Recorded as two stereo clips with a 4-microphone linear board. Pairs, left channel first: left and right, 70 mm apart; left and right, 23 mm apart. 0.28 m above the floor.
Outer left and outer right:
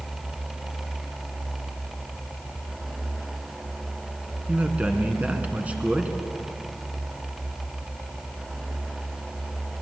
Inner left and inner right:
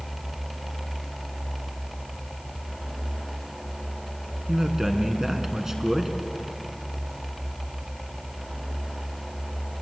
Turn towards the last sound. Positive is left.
turn(degrees=-20)  # may be behind; listen again after turning